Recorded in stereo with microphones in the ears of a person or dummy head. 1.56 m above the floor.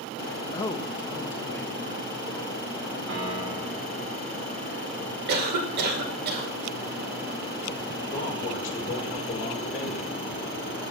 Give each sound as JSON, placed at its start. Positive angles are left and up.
{"t": 0.5, "sound": "a man speaking", "side_deg": 25, "distance_m": 0.5}
{"t": 3.1, "sound": "a piano", "side_deg": -65, "distance_m": 1.6}
{"t": 5.3, "sound": "a cough", "side_deg": -55, "distance_m": 1.9}
{"t": 8.1, "sound": "a man speaking", "side_deg": 55, "distance_m": 2.5}